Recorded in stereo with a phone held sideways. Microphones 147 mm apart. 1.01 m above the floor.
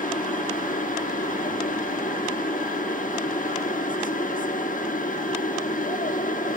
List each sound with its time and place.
0.0 s a machine running: 65° left (ahead or behind), 1.0 m